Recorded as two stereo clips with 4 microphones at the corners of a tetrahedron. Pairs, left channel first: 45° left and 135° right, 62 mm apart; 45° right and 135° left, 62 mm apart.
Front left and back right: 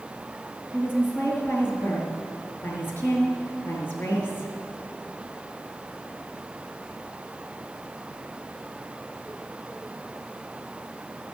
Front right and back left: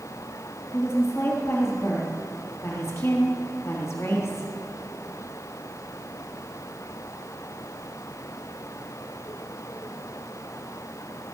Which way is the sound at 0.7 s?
10° right.